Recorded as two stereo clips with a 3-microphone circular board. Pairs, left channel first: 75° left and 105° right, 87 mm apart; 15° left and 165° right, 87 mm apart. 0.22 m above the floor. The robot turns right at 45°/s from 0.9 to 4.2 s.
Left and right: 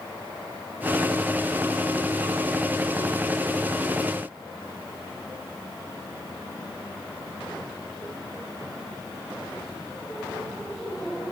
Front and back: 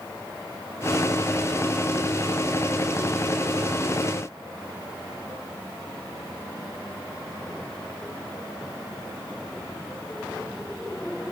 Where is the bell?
I don't hear a bell.